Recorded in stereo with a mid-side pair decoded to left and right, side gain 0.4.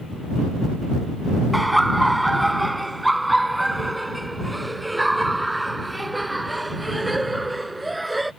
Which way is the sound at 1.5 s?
5° right.